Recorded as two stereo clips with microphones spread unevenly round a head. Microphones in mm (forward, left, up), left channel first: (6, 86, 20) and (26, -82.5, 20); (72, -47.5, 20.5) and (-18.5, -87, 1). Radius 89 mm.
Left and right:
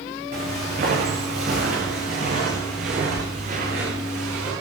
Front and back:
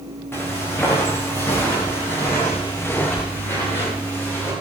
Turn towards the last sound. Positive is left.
turn(degrees=-45)